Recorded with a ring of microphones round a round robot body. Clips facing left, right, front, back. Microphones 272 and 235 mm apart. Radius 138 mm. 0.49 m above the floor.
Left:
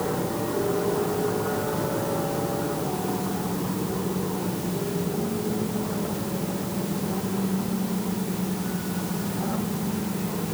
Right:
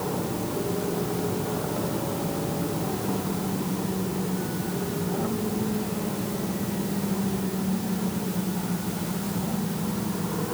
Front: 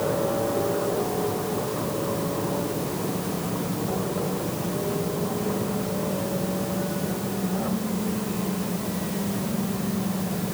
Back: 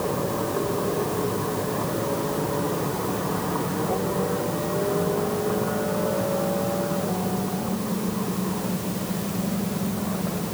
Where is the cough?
I don't hear a cough.